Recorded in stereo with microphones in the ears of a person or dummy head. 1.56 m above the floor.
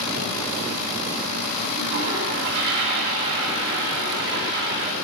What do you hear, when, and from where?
1.8 s a toilet flushing: 50° right (ahead or behind), 2 m